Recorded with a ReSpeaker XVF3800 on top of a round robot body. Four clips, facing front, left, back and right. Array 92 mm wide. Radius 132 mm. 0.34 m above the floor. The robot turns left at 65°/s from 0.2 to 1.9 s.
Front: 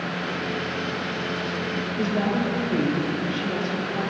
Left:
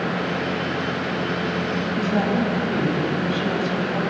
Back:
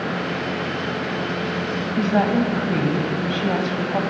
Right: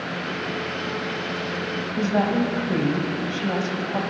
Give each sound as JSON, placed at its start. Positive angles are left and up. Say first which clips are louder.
{"t": 2.0, "sound": "a woman speaking", "louder": "right 1 dB, back 6 dB", "azimuth_deg": -165, "distance_m": 3.0}